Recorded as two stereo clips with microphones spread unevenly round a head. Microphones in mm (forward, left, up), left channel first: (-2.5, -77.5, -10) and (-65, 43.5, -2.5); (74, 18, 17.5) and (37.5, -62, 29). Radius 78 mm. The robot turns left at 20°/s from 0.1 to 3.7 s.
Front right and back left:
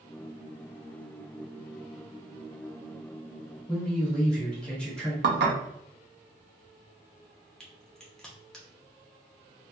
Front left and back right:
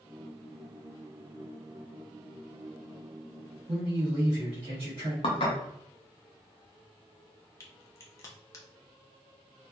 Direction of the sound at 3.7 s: 145° right.